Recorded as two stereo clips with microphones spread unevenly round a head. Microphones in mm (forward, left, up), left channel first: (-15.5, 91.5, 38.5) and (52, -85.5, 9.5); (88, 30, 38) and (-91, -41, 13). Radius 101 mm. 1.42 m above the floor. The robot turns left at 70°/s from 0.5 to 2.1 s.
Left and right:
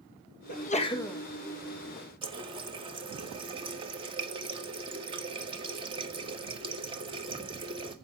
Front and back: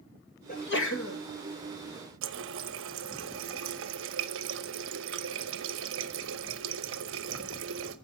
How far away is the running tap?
About 1.0 m.